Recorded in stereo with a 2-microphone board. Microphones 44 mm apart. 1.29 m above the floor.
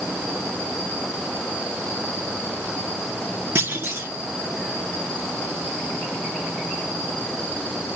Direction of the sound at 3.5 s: 75° right (ahead or behind).